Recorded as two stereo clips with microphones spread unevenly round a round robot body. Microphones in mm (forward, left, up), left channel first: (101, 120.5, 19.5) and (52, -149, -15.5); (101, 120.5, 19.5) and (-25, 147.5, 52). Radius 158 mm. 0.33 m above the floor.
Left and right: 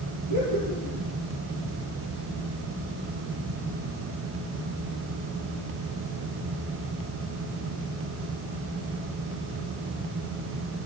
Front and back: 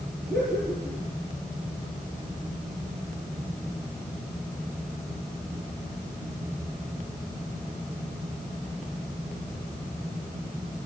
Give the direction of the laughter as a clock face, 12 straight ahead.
3 o'clock.